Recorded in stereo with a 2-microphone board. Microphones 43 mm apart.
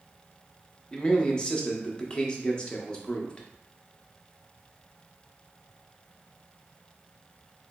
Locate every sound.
0.9 s a man speaking: 20° left (ahead or behind), 0.5 m